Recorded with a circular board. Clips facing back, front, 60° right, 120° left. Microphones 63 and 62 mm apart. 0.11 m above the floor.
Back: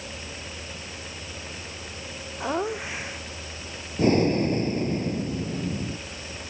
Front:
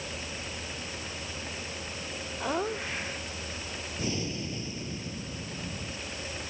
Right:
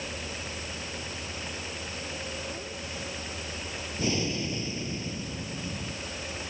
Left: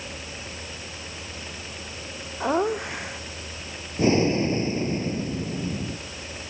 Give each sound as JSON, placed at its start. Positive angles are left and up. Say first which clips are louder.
{"t": 2.4, "sound": "laughter", "louder": "back 4 dB, left 14 dB", "azimuth_deg": 100}
{"t": 4.0, "sound": "breathing", "louder": "back 15 dB, left 10 dB", "azimuth_deg": 165}